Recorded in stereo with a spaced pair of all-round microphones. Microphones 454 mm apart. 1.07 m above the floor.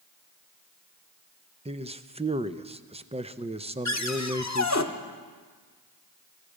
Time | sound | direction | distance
1.6 | a man speaking | 15° right (ahead or behind) | 0.5 m
3.9 | a cupboard door | 40° left (ahead or behind) | 0.9 m